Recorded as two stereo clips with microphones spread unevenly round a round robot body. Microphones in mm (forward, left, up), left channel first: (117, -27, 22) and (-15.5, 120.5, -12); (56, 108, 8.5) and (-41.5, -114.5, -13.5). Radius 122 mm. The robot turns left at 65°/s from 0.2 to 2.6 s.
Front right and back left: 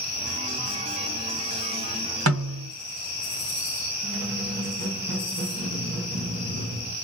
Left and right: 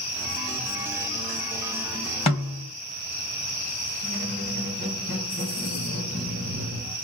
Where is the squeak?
120° left, 1.9 m.